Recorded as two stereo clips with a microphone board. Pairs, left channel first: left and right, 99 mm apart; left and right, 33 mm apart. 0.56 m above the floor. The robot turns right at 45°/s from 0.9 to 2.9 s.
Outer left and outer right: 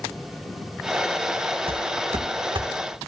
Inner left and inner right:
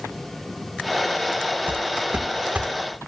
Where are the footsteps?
70° right (ahead or behind), 2 m; by 2.7 s 50° right (ahead or behind), 3 m.